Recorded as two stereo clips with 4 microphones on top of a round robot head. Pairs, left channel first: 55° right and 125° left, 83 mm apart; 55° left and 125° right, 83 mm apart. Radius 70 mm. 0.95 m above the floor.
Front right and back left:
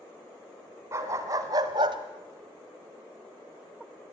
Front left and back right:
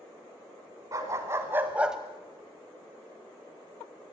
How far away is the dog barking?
About 2 m.